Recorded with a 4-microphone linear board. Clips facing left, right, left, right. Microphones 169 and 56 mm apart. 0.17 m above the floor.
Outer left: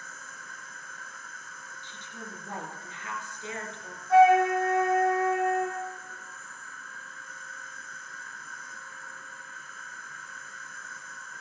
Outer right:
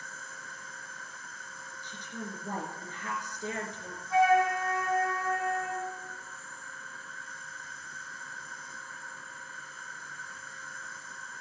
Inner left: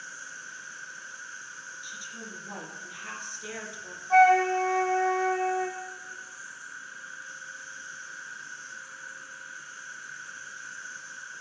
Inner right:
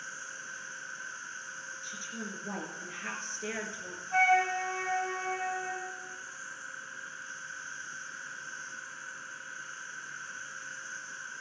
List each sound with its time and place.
0.0 s an insect: 30° right (ahead or behind), 2.5 m
1.8 s a woman speaking: 40° right (ahead or behind), 3 m
4.1 s a flute: 70° left (ahead or behind), 2.5 m